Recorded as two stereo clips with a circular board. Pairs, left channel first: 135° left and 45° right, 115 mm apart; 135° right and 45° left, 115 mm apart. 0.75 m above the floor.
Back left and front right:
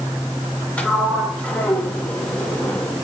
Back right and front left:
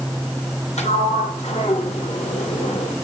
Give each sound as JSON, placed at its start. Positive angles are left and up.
{"t": 0.8, "sound": "a sliding door", "azimuth_deg": -145, "distance_m": 2.5}